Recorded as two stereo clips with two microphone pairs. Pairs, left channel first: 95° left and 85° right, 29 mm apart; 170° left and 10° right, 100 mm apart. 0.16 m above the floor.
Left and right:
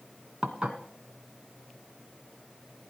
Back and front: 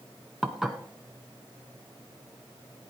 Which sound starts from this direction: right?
Dishes clattering, at 0.4 s.